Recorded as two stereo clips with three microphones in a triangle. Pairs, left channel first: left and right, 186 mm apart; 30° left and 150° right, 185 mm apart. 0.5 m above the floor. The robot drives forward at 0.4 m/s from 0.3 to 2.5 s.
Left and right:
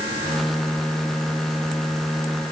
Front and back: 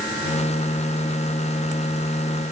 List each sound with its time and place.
Only background noise.